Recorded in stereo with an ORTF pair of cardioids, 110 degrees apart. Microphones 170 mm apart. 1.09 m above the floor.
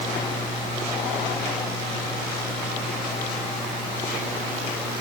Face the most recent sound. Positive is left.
No sound to turn to.